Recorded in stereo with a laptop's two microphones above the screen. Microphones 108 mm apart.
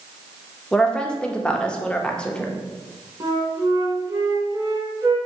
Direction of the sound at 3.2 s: 35° right (ahead or behind).